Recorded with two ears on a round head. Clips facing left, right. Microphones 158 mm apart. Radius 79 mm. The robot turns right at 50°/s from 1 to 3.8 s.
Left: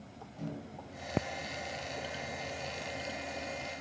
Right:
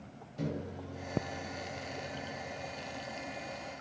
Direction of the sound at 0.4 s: 80° right.